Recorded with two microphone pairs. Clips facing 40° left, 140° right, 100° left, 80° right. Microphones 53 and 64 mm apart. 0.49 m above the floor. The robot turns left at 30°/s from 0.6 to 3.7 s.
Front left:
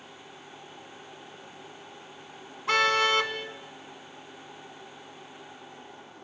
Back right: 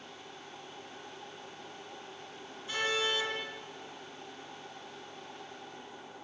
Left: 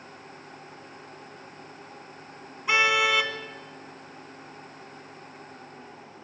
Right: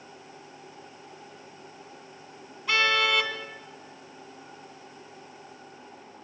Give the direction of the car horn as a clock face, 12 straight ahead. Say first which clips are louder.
Front left 9 dB, left 2 dB; 11 o'clock.